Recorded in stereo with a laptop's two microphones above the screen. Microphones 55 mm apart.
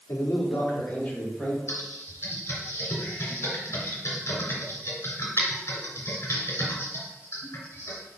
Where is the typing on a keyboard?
50° left (ahead or behind), 2.5 m.